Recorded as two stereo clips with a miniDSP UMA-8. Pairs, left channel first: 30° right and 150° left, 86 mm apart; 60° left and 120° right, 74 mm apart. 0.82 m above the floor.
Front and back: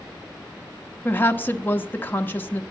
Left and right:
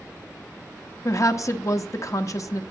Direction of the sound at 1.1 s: 35° left.